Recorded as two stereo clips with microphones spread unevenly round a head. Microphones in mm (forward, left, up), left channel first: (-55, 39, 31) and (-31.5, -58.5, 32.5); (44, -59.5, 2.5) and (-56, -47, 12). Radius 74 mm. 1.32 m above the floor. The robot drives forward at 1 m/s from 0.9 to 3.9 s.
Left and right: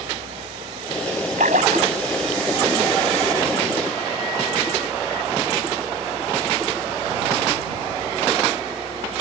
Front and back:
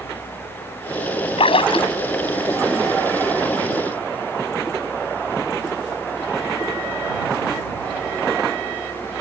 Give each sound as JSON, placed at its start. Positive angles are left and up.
{"t": 1.4, "sound": "a splash", "azimuth_deg": -40}